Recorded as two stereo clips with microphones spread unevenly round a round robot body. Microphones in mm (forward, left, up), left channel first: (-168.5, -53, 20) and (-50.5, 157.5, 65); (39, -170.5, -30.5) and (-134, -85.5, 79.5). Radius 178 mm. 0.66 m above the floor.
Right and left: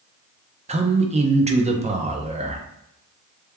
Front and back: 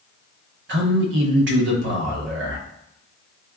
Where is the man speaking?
115° left, 0.7 m.